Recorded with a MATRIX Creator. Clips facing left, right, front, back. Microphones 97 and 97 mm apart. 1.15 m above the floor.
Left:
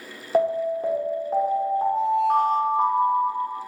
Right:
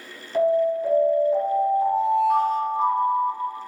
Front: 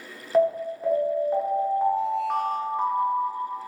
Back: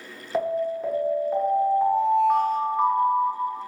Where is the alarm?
85° left, 0.7 m.